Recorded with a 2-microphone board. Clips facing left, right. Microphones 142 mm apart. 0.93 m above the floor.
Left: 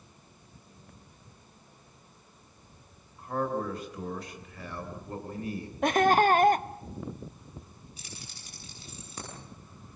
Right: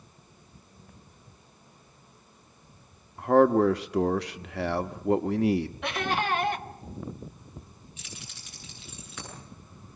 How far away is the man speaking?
About 1.1 m.